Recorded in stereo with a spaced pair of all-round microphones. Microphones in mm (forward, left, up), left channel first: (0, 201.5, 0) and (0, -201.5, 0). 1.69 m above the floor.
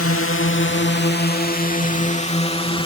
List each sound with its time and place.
0.0 s a drone: 35° left (ahead or behind); by 2.9 s 10° left (ahead or behind)